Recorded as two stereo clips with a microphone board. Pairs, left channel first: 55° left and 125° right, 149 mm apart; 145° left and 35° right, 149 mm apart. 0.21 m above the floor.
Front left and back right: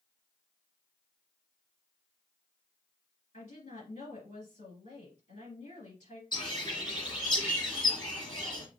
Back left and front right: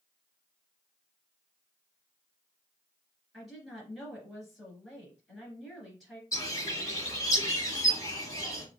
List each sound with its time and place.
3.3 s a woman speaking: 55° left, 2 m
6.3 s a bird: 90° left, 2.0 m